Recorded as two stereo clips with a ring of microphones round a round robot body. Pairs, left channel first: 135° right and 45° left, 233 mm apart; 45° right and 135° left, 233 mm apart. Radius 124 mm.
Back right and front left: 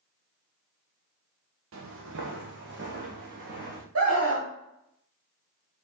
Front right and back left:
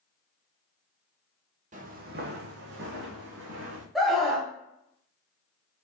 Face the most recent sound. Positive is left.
turn(degrees=45)